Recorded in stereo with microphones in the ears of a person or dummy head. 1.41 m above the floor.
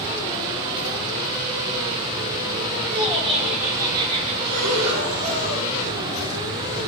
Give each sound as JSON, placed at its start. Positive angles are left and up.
{"t": 2.8, "sound": "laughter", "side_deg": 10, "distance_m": 2.5}
{"t": 4.4, "sound": "breathing", "side_deg": -40, "distance_m": 2.0}